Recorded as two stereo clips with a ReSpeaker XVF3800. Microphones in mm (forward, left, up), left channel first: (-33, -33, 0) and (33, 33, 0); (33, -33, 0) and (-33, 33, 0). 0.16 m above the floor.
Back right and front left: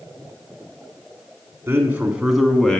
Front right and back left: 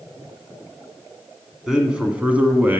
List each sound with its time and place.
1.7 s a man speaking: 65° left, 1.1 m; by 2.8 s 160° left, 1.1 m